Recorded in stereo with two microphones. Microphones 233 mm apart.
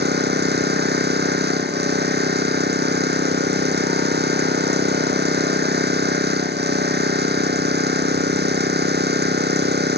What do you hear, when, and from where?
0.0 s an engine running: 45° right (ahead or behind)